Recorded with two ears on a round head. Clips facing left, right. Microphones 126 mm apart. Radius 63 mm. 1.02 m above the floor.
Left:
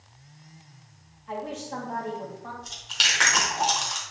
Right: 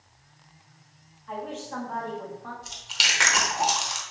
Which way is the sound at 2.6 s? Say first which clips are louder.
Even; 5° right (ahead or behind).